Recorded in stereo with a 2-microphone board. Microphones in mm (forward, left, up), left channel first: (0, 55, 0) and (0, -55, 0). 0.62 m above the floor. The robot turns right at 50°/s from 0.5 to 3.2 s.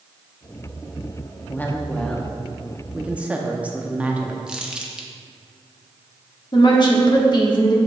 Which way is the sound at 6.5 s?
45° left (ahead or behind).